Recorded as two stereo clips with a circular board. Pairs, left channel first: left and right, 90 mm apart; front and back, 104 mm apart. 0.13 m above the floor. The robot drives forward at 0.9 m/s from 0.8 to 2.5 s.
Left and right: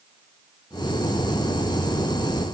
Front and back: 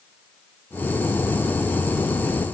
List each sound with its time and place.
Only background noise.